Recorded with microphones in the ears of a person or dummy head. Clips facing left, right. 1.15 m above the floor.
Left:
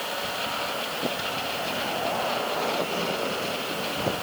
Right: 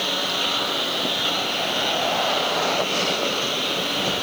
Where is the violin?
No violin in this recording.